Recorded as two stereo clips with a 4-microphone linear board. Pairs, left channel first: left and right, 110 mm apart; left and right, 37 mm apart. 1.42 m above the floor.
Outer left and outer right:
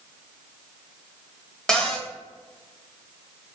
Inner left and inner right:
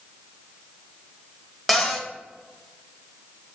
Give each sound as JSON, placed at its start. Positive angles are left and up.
{"t": 1.7, "sound": "a cupboard door", "side_deg": 5, "distance_m": 0.8}